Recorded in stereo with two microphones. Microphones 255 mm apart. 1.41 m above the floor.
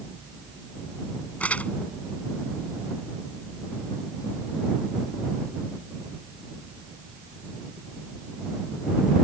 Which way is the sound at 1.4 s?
5° left (ahead or behind).